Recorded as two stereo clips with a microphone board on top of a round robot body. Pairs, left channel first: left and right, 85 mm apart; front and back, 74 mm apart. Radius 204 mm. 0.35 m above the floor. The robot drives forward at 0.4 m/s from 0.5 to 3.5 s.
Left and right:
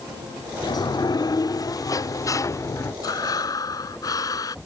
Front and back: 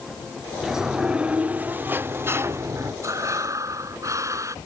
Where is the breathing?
135° left.